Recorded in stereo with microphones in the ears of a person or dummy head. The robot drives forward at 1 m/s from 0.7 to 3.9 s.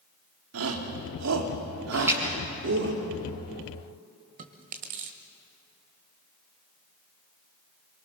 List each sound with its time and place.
0.5 s a shout: 80° right, 2.5 m; by 2.9 s 55° right (ahead or behind), 3 m
1.9 s a splash: 15° right (ahead or behind), 4.5 m
4.4 s chewing: 40° right (ahead or behind), 1.3 m